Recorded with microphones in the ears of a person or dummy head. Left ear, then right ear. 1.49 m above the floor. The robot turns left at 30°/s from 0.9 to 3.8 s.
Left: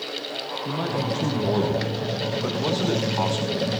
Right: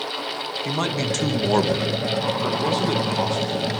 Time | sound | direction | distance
0.7 | a man speaking | 120° right | 1.9 m